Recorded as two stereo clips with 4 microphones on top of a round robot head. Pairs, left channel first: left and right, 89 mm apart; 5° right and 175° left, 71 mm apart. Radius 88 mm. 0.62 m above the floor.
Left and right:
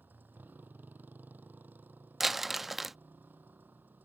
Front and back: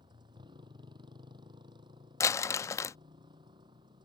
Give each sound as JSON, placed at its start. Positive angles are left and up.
{"t": 0.0, "sound": "a motorcycle", "azimuth_deg": -160}
{"t": 2.2, "sound": "crumpling", "azimuth_deg": -5}